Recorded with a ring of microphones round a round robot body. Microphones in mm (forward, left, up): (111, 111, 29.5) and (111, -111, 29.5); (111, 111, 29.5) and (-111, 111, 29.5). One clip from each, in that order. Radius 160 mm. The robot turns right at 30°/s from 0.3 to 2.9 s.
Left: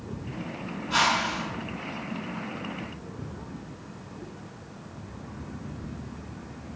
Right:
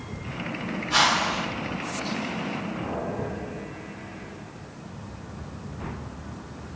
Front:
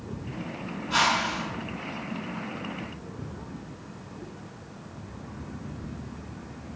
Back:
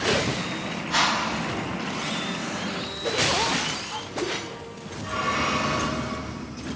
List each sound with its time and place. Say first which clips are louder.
0.9 s a whoosh: right 2 dB, even; 150° right, 1.7 m; by 1.4 s 135° right, 1.7 m